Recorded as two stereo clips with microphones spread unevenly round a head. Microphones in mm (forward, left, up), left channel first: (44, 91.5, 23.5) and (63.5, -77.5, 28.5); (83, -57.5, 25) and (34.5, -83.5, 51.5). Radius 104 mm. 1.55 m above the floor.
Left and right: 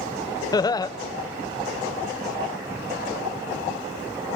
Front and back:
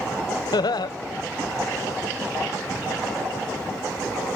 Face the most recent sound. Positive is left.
turn(degrees=30)